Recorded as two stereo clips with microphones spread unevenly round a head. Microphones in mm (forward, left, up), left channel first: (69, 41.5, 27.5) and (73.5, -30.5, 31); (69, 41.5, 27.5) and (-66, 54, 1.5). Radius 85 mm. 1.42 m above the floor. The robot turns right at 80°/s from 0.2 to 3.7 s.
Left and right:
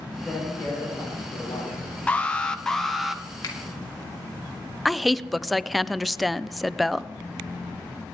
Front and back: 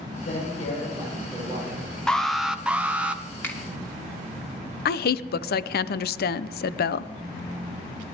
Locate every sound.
0.2 s a man speaking: 10° left, 8 m; by 1.9 s 140° left, 8 m
2.1 s an alarm: 100° left, 1.0 m; by 3.2 s 165° right, 1.0 m
3.4 s a finger snap: 70° left, 2.5 m; by 3.6 s 80° left, 2.5 m
4.8 s a woman speaking: 5° left, 0.6 m